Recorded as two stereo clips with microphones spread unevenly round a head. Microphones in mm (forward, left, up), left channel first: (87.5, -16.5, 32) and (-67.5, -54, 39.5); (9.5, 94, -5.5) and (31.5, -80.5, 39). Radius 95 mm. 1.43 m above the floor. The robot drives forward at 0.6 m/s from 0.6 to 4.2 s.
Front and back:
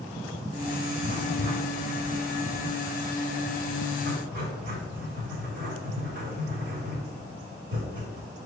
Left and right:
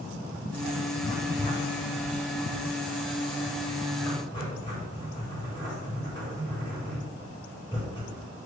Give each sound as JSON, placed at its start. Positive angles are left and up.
{"t": 1.0, "sound": "writing", "azimuth_deg": 150, "distance_m": 2.5}